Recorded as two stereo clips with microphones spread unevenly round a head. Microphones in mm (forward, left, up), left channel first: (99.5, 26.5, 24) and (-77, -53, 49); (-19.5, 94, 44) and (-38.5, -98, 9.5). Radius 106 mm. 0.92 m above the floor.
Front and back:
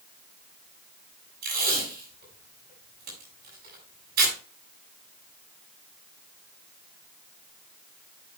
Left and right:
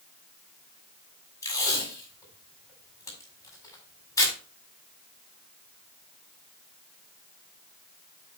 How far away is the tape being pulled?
About 6 m.